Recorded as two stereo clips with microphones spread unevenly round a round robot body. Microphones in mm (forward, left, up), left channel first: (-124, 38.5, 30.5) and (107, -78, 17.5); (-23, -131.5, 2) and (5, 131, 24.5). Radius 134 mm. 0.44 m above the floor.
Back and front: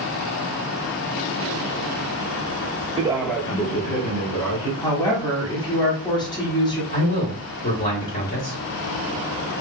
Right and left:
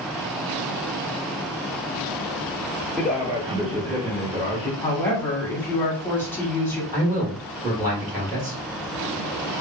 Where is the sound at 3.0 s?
20° right, 0.8 m; by 4.7 s 145° left, 1.4 m.